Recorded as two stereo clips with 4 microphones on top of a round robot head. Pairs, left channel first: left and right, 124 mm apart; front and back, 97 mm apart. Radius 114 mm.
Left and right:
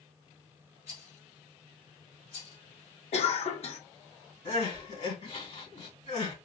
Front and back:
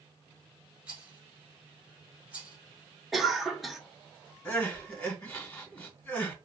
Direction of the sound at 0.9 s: 105° left.